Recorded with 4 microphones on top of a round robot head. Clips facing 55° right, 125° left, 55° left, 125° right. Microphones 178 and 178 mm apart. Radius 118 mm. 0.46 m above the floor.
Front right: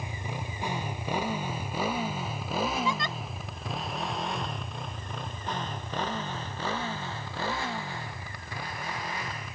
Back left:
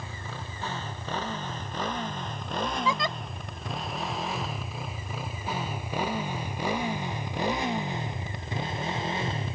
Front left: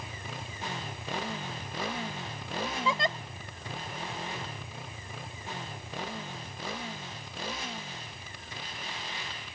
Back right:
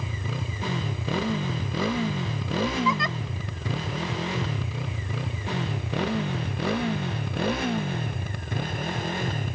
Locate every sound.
0.0 s a motorcycle: 130° right; by 9.6 s 170° right
2.9 s a giggle: 115° left